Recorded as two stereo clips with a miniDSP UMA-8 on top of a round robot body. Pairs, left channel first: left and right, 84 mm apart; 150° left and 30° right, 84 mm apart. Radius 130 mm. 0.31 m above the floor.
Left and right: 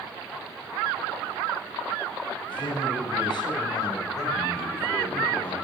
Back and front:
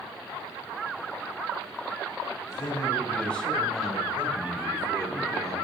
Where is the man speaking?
95° left, 3 m; by 5.5 s 20° left, 3.5 m.